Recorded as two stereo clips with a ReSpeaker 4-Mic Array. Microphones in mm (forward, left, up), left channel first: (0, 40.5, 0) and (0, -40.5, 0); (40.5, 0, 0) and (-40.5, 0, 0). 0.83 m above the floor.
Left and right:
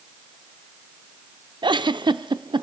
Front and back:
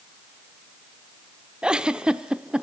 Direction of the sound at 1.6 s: 100° right.